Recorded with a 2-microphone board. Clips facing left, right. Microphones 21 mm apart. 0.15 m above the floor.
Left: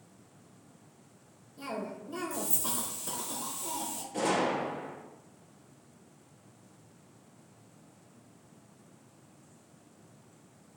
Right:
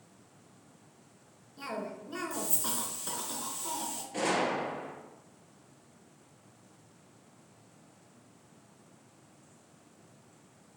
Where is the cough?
30° right (ahead or behind), 2 m.